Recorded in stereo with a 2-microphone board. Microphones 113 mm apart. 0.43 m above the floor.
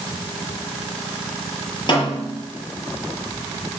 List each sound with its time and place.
1.9 s a snare drum: 45° left (ahead or behind), 8 m